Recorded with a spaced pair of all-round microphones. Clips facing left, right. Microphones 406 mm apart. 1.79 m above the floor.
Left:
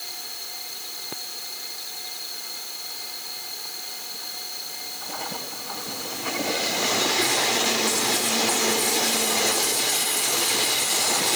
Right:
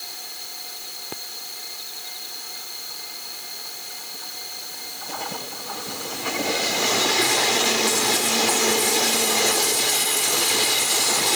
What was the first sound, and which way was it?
Only background noise.